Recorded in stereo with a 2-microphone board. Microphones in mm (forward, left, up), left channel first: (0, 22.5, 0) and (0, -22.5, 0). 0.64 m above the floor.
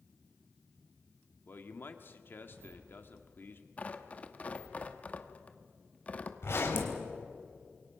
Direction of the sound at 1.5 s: 50° left (ahead or behind).